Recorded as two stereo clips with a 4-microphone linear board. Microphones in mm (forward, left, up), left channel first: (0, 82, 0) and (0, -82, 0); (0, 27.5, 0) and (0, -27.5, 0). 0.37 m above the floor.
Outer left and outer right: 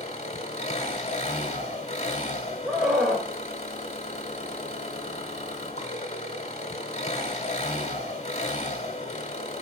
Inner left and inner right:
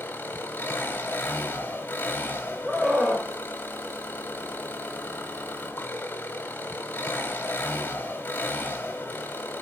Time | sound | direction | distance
0.0 | an engine running | 40° left (ahead or behind) | 1.2 m
2.6 | a scream | 5° right (ahead or behind) | 1.2 m